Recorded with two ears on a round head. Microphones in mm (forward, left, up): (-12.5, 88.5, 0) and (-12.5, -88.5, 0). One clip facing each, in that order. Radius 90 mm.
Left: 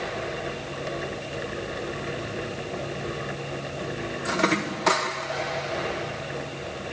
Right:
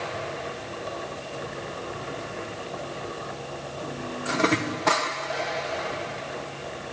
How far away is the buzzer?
No buzzer in this recording.